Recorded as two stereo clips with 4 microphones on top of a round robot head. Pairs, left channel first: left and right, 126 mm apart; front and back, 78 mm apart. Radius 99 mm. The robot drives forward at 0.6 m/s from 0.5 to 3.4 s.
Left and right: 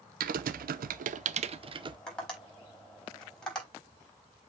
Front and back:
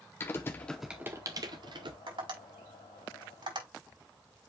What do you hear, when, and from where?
0.2 s typing on a keyboard: 70° right, 0.5 m; by 2.0 s 145° right, 0.9 m
2.1 s tapping: 175° left, 5 m